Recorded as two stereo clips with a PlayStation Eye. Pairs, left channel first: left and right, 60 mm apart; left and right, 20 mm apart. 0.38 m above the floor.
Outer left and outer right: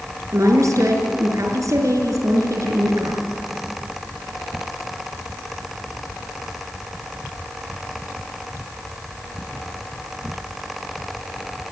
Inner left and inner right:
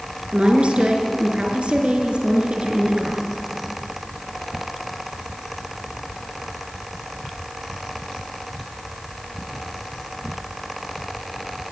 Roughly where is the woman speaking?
Right.